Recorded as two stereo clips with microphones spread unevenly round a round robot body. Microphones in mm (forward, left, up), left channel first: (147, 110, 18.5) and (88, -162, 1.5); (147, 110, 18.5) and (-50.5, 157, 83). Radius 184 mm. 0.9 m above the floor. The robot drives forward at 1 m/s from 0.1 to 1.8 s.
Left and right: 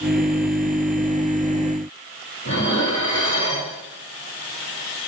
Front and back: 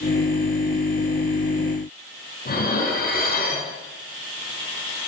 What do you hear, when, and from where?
2.5 s dishes clattering: 30° left, 5.5 m